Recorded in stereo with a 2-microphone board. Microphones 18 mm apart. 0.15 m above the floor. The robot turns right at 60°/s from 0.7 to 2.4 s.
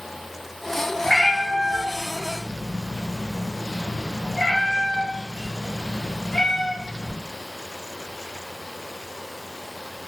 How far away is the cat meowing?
About 1.3 m.